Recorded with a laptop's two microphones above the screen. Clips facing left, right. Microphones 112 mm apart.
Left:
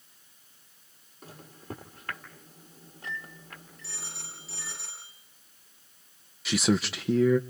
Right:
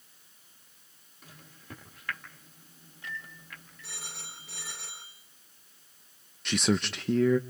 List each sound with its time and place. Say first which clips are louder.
1.2 s a microwave: left 8 dB; 40° left (ahead or behind), 1.5 m
3.8 s a phone ringing: right 1 dB; 85° right, 9.5 m
6.5 s a man speaking: left 2 dB; 5° left (ahead or behind), 0.9 m